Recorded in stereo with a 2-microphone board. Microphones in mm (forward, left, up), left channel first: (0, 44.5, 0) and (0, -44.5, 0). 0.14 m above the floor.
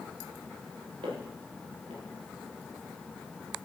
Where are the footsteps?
90° right, 6 m.